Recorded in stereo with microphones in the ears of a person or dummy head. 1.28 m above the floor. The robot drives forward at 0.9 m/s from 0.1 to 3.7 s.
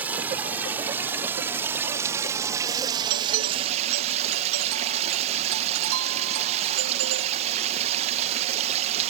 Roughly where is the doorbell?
Right.